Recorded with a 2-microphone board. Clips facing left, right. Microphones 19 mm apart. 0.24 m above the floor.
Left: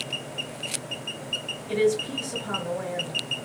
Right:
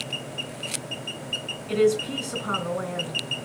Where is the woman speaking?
60° right (ahead or behind), 3 m.